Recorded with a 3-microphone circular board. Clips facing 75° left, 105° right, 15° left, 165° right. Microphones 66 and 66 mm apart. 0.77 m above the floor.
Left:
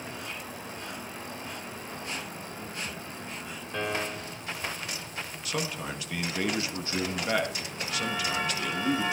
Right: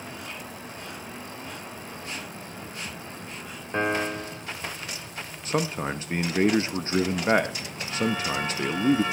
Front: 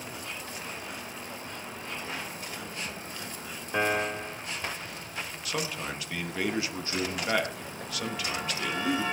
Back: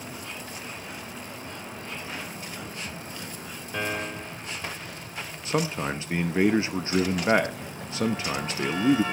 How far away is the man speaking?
About 0.8 m.